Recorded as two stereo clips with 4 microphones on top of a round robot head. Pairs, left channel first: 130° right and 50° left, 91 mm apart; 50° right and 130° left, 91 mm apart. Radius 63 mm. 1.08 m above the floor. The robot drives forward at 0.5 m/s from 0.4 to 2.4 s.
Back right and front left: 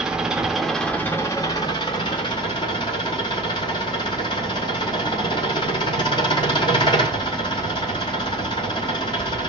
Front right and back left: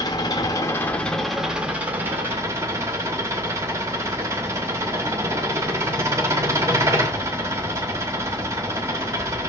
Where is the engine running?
30° right, 0.7 m; by 9.5 s 170° right, 1.0 m.